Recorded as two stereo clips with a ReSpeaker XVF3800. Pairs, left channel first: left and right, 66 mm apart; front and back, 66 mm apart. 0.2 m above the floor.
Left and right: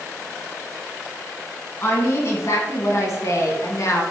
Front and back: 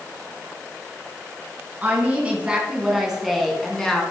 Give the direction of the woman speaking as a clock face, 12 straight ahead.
8 o'clock.